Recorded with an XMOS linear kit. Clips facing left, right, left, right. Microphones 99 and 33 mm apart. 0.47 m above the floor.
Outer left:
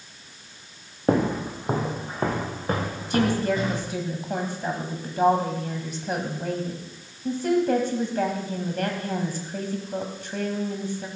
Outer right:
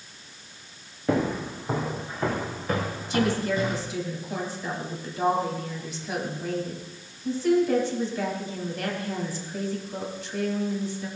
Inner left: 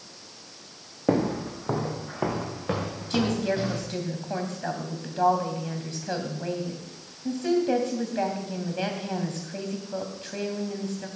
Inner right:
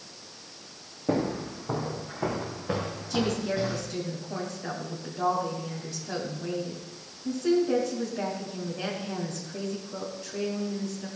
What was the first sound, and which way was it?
Footsteps, 40° left (ahead or behind).